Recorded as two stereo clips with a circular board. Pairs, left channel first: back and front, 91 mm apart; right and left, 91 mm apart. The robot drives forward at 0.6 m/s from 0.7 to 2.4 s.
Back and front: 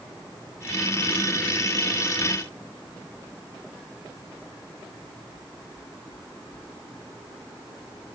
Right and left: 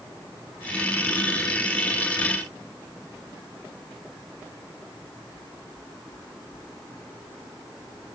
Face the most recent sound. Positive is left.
No sound to turn to.